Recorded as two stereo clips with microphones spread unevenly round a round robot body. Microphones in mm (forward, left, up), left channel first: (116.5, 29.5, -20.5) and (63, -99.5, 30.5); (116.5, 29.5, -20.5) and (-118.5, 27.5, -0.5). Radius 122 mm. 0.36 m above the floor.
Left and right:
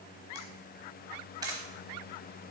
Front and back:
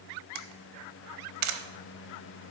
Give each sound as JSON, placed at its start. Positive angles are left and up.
{"t": 0.3, "sound": "a camera shutter", "azimuth_deg": 165, "distance_m": 0.9}